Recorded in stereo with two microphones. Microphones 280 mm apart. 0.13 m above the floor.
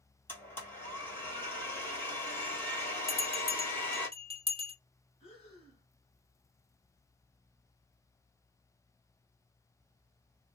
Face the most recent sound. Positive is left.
turn(degrees=20)  # may be behind; listen again after turning